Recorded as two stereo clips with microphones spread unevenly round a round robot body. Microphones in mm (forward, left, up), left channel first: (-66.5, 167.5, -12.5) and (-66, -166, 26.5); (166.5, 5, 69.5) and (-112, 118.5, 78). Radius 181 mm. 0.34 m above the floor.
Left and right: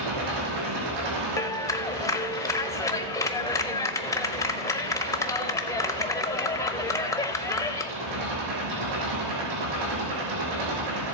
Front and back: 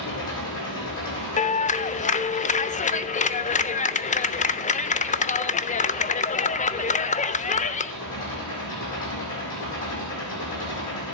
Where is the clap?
25° left, 0.7 m.